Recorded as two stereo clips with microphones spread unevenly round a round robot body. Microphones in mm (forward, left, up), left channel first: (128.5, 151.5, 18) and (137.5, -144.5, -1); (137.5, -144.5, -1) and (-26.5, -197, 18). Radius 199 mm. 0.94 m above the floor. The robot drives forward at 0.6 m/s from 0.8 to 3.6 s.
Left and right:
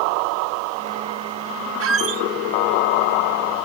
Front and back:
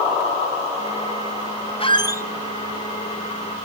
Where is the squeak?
45° right, 0.8 m; by 2.2 s 65° right, 0.7 m.